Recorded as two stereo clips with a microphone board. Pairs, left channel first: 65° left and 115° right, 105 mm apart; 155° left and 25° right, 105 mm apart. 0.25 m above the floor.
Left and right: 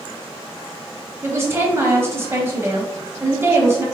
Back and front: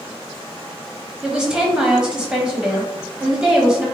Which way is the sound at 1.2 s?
95° right.